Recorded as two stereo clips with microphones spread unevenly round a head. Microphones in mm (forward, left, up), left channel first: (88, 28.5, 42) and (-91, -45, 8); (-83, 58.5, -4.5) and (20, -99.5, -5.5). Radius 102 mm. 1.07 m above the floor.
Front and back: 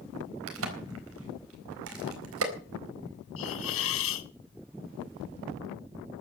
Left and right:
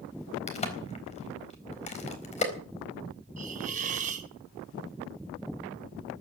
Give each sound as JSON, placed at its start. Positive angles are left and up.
{"t": 0.5, "sound": "a crack", "azimuth_deg": 180, "distance_m": 4.0}
{"t": 3.4, "sound": "a hiss", "azimuth_deg": 0, "distance_m": 1.4}